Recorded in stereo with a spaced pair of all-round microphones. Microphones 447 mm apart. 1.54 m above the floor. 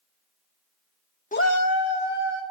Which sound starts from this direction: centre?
A shout, at 1.3 s.